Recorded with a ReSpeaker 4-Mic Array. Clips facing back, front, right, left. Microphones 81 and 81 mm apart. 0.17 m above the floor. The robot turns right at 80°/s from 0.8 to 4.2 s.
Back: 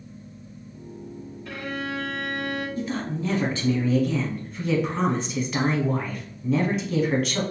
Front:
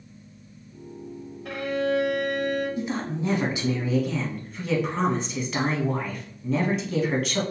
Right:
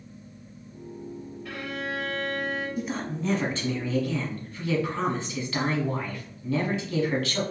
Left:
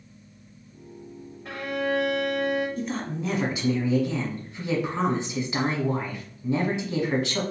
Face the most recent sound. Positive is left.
turn(degrees=90)